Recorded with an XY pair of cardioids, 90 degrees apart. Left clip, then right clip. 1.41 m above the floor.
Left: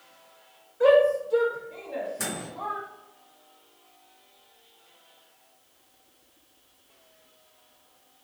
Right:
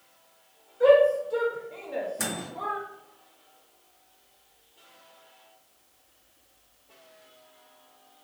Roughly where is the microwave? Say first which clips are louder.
Right 1 dB; ahead.